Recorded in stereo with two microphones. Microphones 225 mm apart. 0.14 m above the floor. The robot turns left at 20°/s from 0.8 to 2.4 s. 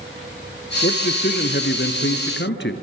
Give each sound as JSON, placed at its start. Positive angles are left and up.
{"t": 0.8, "sound": "a man speaking", "azimuth_deg": 120, "distance_m": 1.8}